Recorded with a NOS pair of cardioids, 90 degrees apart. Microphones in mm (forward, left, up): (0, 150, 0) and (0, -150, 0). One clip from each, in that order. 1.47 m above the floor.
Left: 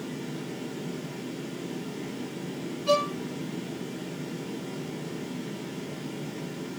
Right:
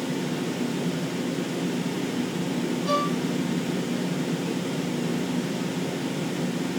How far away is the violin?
About 4 m.